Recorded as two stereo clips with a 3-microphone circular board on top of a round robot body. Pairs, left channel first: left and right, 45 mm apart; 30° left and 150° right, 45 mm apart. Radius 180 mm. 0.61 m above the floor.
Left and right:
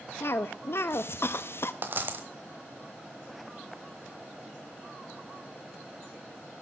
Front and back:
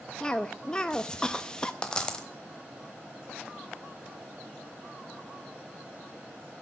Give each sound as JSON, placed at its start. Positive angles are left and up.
{"t": 0.2, "sound": "a cough", "azimuth_deg": 100, "distance_m": 0.8}
{"t": 1.8, "sound": "a dropped coin", "azimuth_deg": -40, "distance_m": 1.2}